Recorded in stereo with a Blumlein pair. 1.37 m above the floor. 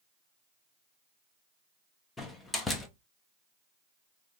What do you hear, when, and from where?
2.2 s a door slam: 10° left, 0.8 m